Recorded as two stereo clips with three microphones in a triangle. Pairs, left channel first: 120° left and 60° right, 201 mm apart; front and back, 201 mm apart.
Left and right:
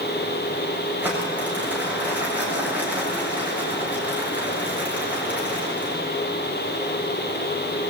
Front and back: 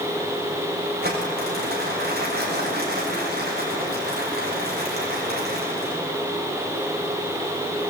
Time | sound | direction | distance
1.0 | crumpling | 140° right | 7.5 m